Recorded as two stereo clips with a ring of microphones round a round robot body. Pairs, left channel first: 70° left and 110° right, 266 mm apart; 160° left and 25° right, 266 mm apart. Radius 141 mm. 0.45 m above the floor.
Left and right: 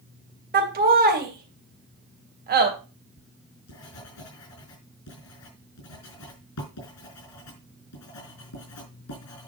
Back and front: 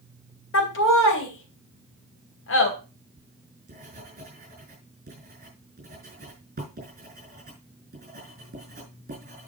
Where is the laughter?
165° right, 3 m.